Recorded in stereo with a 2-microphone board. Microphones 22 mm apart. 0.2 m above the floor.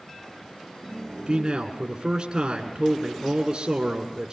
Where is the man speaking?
40° right (ahead or behind), 2 m.